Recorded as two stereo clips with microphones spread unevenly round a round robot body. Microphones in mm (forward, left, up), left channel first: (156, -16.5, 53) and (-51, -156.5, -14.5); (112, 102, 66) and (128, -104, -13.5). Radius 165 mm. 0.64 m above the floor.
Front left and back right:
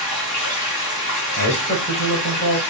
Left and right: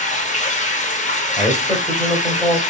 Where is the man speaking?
15° left, 2.5 m.